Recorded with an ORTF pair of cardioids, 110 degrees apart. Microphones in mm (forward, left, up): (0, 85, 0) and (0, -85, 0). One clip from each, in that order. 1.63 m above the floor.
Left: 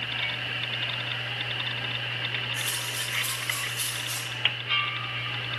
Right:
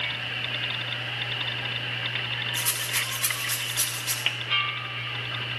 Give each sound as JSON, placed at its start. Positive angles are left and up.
{"t": 2.5, "sound": "a rattle", "azimuth_deg": -45, "distance_m": 5.0}